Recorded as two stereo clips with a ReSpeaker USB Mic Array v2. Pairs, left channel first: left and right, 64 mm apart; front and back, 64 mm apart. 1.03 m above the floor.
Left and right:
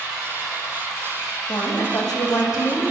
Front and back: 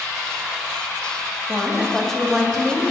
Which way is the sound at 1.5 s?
85° left.